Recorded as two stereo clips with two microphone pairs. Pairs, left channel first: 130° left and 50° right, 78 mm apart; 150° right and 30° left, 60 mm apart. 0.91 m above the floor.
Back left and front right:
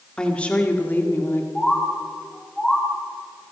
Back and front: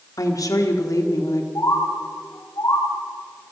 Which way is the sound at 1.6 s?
145° right.